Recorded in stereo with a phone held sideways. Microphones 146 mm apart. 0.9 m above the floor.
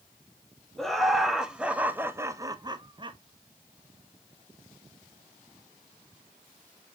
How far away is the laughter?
About 1.1 m.